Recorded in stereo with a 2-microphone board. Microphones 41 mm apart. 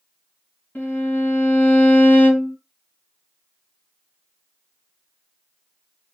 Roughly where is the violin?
Left.